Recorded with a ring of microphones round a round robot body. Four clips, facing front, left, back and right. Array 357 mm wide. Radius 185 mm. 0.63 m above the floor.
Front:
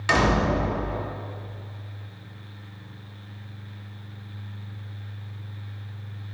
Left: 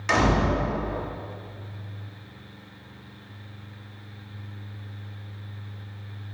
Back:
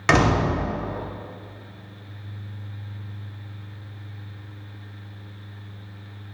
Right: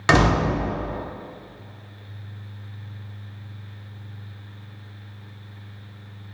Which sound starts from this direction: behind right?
A door slam, at 0.1 s.